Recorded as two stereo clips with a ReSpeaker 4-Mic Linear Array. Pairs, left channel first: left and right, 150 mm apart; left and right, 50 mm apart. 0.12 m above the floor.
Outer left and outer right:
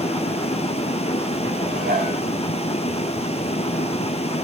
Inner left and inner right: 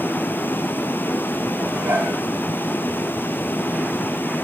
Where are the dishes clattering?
80° right, 5.5 m.